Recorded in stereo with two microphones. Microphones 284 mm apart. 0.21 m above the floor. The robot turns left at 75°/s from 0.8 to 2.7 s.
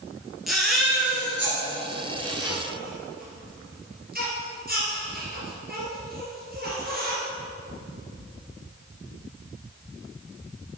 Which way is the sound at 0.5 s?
Centre (ahead or behind).